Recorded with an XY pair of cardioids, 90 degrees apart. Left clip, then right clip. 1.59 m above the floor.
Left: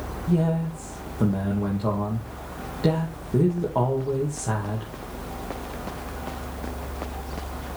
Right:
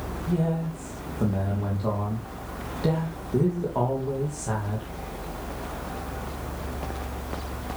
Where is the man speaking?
20° left, 2.5 m.